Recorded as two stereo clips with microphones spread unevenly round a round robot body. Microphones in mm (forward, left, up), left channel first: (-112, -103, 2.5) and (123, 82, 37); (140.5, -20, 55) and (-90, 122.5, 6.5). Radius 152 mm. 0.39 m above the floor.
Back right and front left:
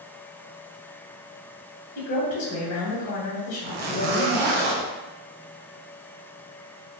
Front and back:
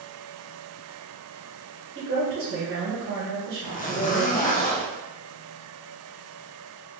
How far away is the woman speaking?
About 1.7 m.